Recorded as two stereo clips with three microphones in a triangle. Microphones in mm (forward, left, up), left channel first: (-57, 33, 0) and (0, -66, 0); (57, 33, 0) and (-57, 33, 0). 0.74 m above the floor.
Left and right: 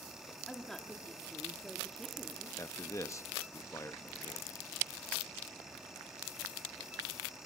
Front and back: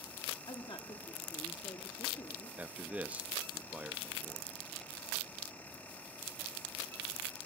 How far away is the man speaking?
About 0.8 m.